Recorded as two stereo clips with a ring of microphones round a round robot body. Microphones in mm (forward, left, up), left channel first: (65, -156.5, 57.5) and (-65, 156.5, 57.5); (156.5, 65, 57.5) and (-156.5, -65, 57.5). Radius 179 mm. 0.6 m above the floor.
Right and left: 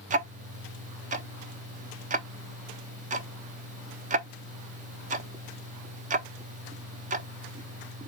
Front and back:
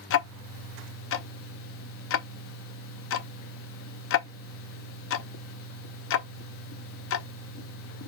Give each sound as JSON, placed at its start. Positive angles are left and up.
{"t": 0.1, "sound": "ticking", "azimuth_deg": 55, "distance_m": 0.6}